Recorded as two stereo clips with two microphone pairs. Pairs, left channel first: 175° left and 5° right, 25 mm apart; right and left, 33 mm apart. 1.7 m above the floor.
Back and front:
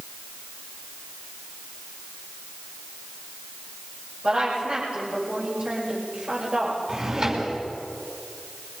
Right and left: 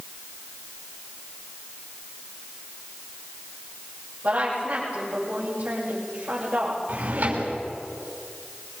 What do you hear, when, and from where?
4.2 s a woman speaking: 45° left, 7 m
6.9 s a drawer: 55° left, 5.5 m